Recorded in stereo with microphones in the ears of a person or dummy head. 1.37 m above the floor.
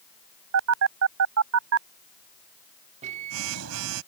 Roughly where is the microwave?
Right.